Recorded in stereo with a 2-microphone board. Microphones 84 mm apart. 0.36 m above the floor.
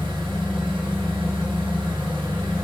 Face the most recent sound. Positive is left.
turn(degrees=-85)